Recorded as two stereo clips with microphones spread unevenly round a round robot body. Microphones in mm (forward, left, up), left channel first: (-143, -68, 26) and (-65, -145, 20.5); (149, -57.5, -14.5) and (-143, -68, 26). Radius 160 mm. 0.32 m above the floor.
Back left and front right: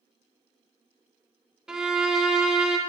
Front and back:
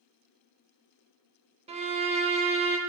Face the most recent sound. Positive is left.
turn(degrees=-115)